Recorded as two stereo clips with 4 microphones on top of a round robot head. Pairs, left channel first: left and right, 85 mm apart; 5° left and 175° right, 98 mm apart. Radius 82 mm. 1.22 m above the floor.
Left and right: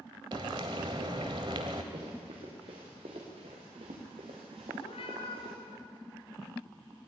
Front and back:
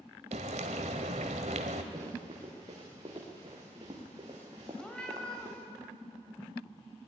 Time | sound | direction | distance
0.3 | frying | 145° right | 1.3 m
1.9 | running footsteps | 120° right | 6.5 m
4.8 | a cat meowing | 85° left | 4 m